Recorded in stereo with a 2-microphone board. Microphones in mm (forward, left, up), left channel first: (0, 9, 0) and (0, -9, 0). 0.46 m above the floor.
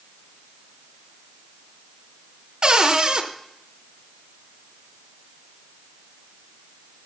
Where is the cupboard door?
50° right (ahead or behind), 0.8 m.